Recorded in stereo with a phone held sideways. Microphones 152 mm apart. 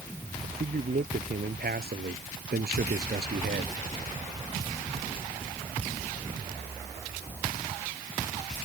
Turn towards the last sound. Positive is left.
turn(degrees=-90)